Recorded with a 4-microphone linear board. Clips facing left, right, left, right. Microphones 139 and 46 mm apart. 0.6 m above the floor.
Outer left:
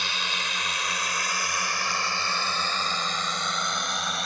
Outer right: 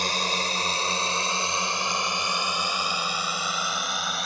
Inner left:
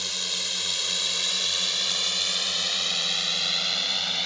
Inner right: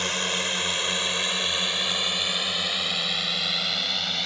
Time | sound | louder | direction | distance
0.0 | a drone | outer right 5 dB, inner right 6 dB | 40° right (ahead or behind) | ?